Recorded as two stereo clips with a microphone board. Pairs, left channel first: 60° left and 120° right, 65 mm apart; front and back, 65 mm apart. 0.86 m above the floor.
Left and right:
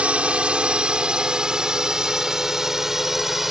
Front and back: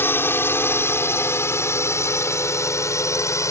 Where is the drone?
50° right; by 3.5 s 35° right.